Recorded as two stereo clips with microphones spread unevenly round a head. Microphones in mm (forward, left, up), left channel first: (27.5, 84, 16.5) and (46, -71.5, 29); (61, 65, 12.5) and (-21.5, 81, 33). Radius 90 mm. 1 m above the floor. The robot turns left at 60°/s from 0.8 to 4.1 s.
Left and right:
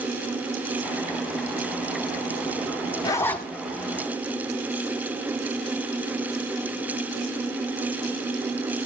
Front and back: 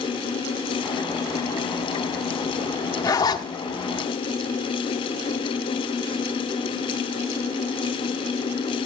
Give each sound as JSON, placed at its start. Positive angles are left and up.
{"t": 3.0, "sound": "a zipper", "azimuth_deg": 35, "distance_m": 1.2}